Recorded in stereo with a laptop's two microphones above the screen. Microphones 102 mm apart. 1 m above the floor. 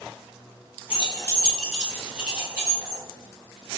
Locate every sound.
0.9 s keys jangling: 60° left (ahead or behind), 0.6 m; by 3.0 s 25° right (ahead or behind), 2.5 m